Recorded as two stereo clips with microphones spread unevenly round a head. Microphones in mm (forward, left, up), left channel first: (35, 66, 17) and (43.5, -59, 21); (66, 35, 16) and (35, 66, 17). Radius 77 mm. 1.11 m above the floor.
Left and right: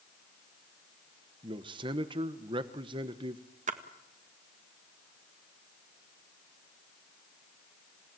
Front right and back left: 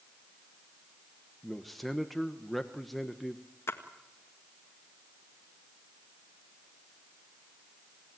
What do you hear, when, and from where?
1.4 s a man speaking: 130° right, 1.0 m
3.7 s a splash: 70° right, 1.7 m